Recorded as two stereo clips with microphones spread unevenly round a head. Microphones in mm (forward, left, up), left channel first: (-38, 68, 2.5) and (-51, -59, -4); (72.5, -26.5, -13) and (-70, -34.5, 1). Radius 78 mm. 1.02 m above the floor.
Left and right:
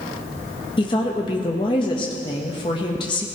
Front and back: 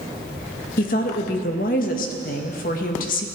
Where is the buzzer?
No buzzer in this recording.